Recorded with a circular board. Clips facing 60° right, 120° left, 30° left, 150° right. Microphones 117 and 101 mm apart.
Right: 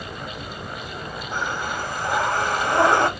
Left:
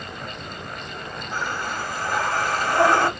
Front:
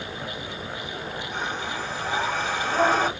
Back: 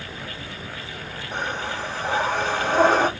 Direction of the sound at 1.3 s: 130° right.